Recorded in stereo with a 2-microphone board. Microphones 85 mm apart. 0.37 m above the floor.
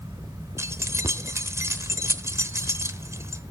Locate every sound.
0.6 s keys jangling: 35° right (ahead or behind), 0.9 m